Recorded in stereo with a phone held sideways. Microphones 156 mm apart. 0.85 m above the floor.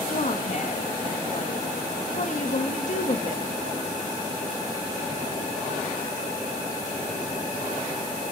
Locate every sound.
0.1 s a woman speaking: 50° left (ahead or behind), 1.4 m